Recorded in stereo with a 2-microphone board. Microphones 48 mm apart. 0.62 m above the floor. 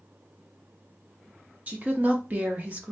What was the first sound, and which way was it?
A woman speaking, 35° right (ahead or behind).